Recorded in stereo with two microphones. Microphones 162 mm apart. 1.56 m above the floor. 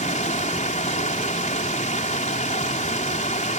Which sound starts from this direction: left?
Running water, at 0.0 s.